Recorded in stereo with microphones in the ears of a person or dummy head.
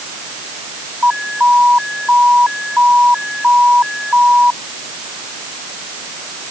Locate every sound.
1.0 s an alarm: 5° right (ahead or behind)